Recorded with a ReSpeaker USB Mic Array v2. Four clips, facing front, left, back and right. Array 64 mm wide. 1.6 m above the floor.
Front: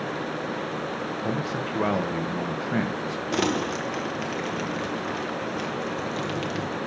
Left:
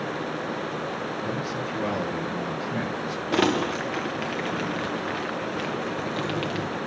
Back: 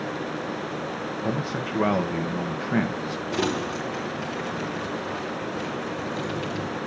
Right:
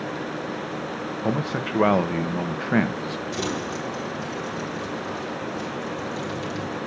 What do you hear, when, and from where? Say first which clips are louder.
1.2 s a man speaking: right 3 dB, back 1 dB; 95° right, 1.1 m
3.3 s crumpling: left 9 dB, front 1 dB; 75° left, 1.2 m